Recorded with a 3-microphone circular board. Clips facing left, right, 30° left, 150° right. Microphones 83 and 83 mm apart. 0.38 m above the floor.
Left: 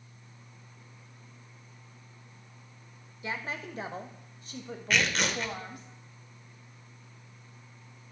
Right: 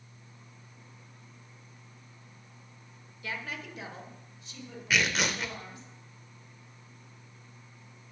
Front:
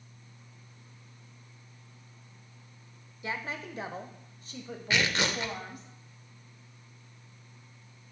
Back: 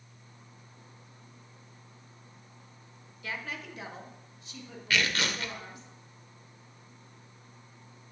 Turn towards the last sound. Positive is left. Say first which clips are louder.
# even, front 1 dB
turn(degrees=-10)